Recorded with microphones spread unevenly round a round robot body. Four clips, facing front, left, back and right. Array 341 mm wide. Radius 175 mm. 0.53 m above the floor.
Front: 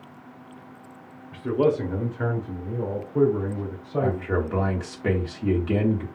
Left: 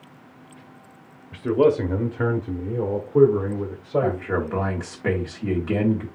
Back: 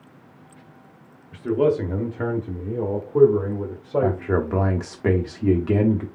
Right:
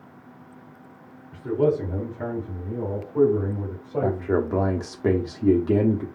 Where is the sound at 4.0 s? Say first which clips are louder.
Right 1 dB, back 2 dB; 140° right, 1.0 m.